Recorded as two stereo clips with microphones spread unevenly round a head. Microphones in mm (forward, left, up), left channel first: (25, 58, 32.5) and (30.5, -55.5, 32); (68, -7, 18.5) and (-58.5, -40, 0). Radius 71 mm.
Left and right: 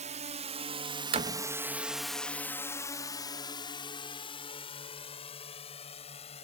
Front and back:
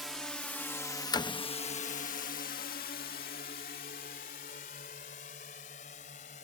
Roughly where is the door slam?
Ahead right.